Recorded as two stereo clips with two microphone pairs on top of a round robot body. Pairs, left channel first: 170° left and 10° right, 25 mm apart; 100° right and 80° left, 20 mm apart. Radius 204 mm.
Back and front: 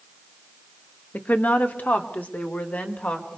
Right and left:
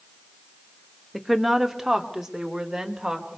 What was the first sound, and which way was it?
A woman speaking, 170° left.